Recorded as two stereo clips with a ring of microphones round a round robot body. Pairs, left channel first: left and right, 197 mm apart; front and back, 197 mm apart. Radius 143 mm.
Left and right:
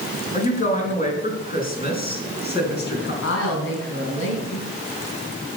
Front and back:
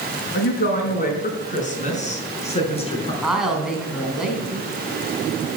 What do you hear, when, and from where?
0.3 s a woman speaking: 40° left, 4 m; by 3.1 s 60° left, 4.5 m
3.2 s a woman speaking: 95° left, 3.5 m